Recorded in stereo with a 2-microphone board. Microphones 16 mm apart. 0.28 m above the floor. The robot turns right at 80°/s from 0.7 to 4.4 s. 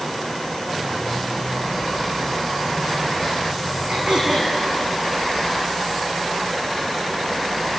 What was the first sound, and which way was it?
Throat clearing, 75° right.